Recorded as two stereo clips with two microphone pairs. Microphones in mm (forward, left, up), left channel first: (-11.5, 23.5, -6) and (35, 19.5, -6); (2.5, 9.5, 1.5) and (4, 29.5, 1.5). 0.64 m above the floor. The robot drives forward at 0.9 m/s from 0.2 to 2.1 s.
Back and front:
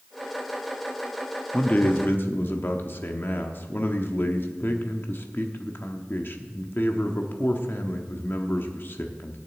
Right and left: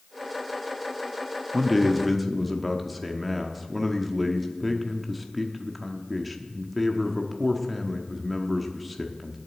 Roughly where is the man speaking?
Behind.